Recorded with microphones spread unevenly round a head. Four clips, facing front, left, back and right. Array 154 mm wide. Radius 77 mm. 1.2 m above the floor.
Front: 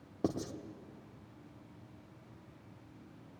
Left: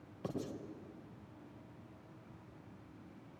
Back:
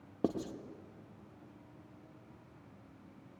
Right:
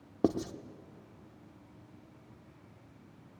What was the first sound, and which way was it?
Writing, 100° right.